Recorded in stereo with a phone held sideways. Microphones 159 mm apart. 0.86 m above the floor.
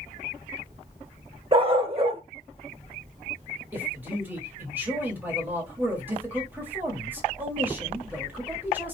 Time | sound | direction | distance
1.5 | a dog barking | 35° right (ahead or behind) | 0.7 m
3.7 | a man speaking | 10° right (ahead or behind) | 1.4 m